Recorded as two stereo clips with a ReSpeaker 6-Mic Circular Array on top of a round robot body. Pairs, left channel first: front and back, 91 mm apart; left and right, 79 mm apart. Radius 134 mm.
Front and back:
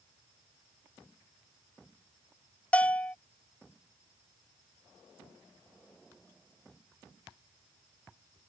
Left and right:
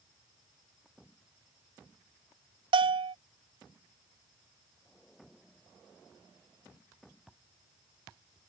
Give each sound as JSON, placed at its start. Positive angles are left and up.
{"t": 2.7, "sound": "a bell", "azimuth_deg": -75}